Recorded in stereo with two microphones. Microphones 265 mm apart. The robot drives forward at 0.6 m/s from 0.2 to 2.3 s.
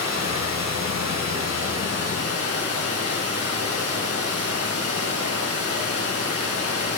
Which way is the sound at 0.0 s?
75° right (ahead or behind).